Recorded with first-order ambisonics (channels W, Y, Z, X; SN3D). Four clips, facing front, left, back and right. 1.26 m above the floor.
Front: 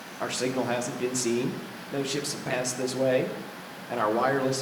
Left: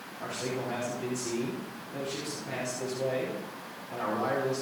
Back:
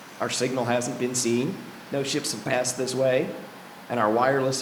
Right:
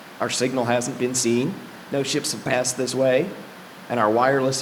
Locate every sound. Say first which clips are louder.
0.2 s a man speaking: right 12 dB, back 3 dB; 105° right, 1.0 m